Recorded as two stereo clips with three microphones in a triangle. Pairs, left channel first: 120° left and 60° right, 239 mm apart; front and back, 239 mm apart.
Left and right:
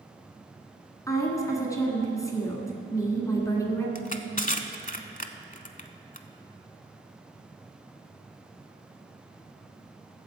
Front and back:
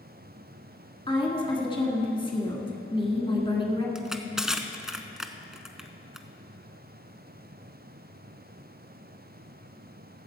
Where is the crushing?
95° left, 0.6 m.